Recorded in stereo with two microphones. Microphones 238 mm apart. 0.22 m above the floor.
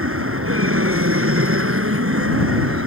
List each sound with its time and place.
0.0 s an aircraft: 65° right (ahead or behind)